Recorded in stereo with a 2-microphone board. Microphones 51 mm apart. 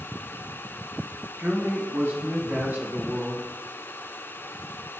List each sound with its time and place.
1.4 s a man speaking: 55° right (ahead or behind), 2.5 m; by 3.5 s 35° right (ahead or behind), 2.5 m